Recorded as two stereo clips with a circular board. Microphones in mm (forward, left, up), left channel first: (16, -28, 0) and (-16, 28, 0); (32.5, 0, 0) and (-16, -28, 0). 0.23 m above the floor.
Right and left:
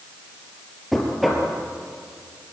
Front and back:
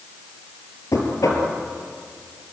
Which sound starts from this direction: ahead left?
Knocking, at 0.9 s.